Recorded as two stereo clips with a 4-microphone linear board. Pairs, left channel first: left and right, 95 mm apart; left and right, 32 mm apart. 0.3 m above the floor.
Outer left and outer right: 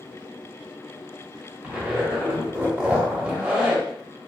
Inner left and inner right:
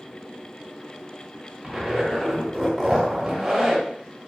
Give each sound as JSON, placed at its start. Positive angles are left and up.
{"t": 1.6, "sound": "a zipper", "side_deg": -10, "distance_m": 0.9}